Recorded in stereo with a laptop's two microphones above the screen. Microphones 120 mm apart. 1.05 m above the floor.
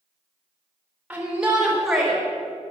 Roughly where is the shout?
Centre.